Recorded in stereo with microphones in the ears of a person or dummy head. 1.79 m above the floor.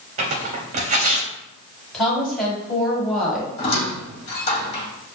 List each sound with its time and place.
0.2 s tearing paper: 35° right (ahead or behind), 0.7 m
1.9 s a woman speaking: 5° left (ahead or behind), 1.8 m
3.6 s a squeak: 30° left (ahead or behind), 1.5 m